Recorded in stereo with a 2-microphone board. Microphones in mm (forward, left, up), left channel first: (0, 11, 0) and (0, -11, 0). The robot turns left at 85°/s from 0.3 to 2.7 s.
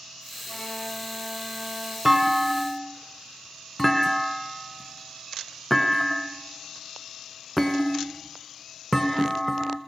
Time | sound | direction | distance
0.5 | a violin | 55° left | 9 m
2.0 | a clunk | 20° right (ahead or behind) | 1.8 m